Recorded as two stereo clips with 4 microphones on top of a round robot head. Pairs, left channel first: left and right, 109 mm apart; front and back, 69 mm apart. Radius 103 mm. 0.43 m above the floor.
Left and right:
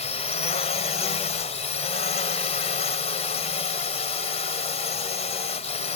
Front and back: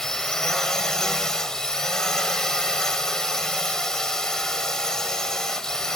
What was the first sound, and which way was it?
A drone, 80° left.